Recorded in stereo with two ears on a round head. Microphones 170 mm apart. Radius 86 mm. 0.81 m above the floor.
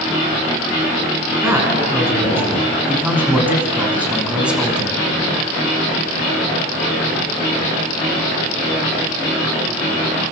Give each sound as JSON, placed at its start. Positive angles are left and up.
{"t": 1.4, "sound": "a man speaking", "side_deg": -15, "distance_m": 8.0}